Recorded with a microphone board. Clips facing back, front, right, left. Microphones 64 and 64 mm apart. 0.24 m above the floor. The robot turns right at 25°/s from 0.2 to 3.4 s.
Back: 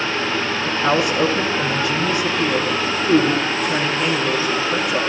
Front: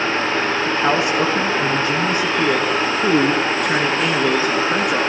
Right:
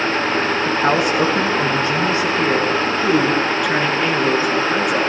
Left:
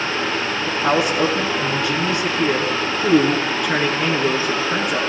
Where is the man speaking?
70° right, 3.5 m; by 5.0 s 5° right, 3.5 m.